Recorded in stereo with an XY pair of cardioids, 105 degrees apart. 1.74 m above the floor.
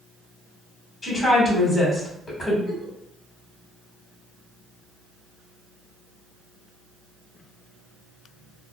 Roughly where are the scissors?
No scissors in this recording.